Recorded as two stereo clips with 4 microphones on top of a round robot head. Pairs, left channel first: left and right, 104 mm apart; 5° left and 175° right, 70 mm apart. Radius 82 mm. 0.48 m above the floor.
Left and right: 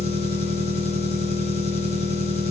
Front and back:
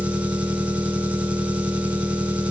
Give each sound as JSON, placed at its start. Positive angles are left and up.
{"t": 0.0, "sound": "an engine running", "azimuth_deg": 115, "distance_m": 4.0}